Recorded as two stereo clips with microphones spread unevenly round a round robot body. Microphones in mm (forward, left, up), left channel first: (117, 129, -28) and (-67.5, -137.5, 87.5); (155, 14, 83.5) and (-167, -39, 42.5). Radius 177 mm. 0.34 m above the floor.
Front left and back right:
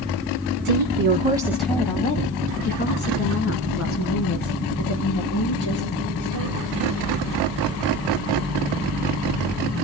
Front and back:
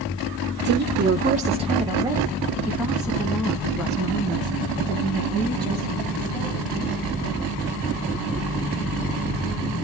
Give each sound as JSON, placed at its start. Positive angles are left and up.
{"t": 0.7, "sound": "a woman speaking", "azimuth_deg": -155, "distance_m": 1.1}